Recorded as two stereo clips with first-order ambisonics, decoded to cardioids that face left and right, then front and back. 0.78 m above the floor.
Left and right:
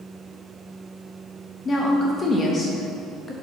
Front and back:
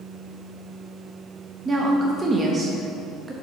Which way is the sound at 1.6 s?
130° left.